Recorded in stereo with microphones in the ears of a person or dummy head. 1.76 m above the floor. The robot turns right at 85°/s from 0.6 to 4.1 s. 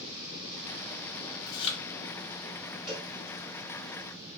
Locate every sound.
1.5 s chewing: 20° left (ahead or behind), 0.8 m; by 1.8 s 50° left (ahead or behind), 0.8 m
2.9 s a cowbell: 5° left (ahead or behind), 1.3 m; by 3.1 s 20° left (ahead or behind), 1.3 m